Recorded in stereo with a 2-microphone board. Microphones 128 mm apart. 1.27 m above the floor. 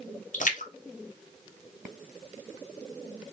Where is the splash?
80° left, 0.7 m.